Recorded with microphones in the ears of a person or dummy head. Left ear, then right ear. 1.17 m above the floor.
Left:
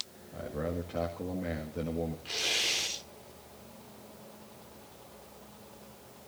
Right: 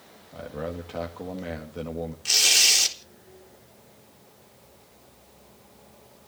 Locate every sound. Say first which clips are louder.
0.3 s a man speaking: right 2 dB; 40° right (ahead or behind), 1.9 m
2.2 s tearing paper: right 12 dB; 85° right, 4 m